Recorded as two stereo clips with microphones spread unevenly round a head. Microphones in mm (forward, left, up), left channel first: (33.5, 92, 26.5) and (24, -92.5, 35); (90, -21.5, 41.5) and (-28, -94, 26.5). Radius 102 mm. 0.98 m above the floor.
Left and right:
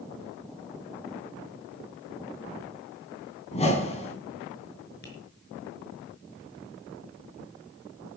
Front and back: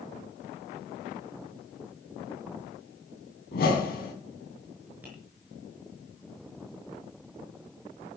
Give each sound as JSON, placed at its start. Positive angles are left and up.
{"t": 3.5, "sound": "a whoosh", "azimuth_deg": 30, "distance_m": 4.0}
{"t": 5.0, "sound": "tapping", "azimuth_deg": 130, "distance_m": 5.0}